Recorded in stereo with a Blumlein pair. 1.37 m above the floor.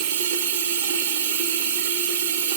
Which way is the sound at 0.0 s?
55° right.